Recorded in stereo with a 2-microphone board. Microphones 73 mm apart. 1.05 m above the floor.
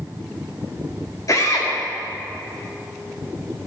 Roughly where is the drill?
Left.